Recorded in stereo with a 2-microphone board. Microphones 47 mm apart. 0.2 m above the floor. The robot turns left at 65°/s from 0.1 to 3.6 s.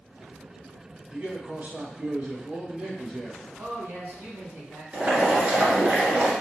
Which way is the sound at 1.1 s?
35° right.